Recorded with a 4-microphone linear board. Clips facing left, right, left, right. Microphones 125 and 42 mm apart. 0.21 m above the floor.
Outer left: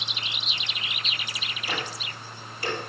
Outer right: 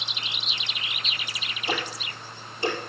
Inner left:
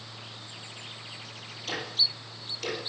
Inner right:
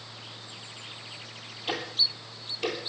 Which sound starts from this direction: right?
Ticking, at 1.7 s.